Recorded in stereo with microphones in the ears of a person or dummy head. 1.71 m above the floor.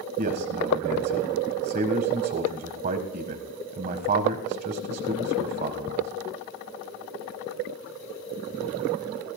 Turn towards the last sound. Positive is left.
turn(degrees=-40)  # may be behind; listen again after turning